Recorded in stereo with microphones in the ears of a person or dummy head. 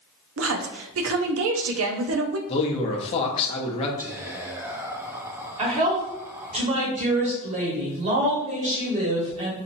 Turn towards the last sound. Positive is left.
turn(degrees=-35)  # may be behind; listen again after turning